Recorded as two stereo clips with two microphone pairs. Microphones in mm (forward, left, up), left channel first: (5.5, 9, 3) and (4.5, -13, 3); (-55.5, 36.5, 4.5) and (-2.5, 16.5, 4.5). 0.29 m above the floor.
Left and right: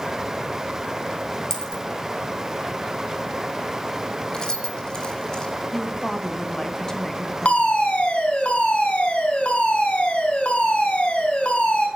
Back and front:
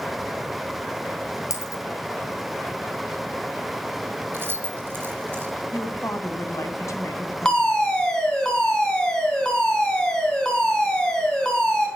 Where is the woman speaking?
155° left, 2.5 m.